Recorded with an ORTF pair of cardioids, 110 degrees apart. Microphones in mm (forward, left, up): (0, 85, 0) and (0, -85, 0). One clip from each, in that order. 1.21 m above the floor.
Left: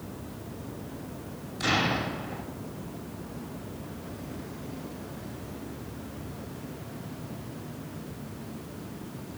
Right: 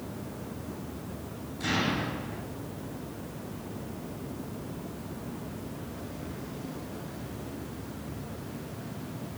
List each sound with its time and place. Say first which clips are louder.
1.6 s an explosion: left 3 dB; 55° left, 2 m